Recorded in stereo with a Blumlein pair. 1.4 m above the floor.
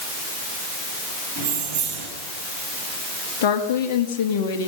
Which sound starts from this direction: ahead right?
Keys jangling, at 1.4 s.